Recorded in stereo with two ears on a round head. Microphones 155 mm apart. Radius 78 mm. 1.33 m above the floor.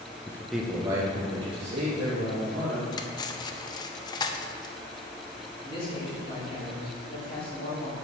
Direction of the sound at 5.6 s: 30° left (ahead or behind).